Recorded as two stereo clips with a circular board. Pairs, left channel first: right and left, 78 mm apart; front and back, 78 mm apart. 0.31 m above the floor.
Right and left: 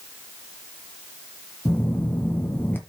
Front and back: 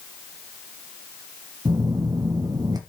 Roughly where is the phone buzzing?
Behind right.